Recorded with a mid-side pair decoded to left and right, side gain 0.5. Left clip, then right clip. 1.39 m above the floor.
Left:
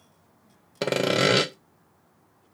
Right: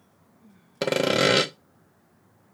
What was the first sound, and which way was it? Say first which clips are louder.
Sawing: right 1 dB; 5° right.